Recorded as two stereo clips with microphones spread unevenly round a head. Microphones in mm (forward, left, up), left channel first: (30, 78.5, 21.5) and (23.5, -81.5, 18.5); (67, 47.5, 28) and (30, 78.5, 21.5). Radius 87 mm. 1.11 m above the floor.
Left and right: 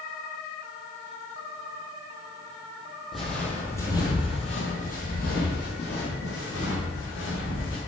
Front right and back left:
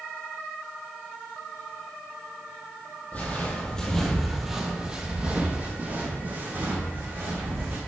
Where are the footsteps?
5° right, 1.8 m; by 7.8 s 105° left, 4 m.